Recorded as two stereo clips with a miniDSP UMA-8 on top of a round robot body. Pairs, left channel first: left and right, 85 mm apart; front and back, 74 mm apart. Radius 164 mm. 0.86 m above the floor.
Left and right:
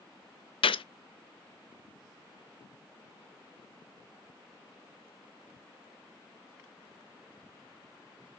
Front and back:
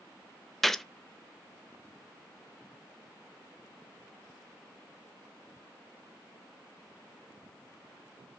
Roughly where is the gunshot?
Left.